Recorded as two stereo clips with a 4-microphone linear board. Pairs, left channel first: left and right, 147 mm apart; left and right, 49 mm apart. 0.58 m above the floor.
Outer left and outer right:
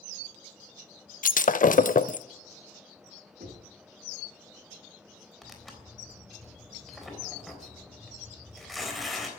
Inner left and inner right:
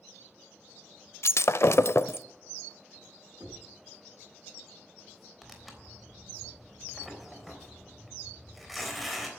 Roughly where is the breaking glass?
Left.